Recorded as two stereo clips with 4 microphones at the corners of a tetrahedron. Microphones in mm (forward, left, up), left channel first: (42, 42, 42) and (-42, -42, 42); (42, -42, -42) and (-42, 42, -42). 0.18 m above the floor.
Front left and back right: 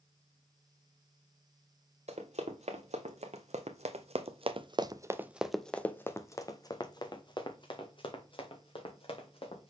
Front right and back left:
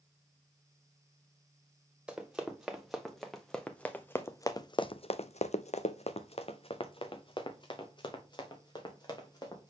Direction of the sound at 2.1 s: 140° right.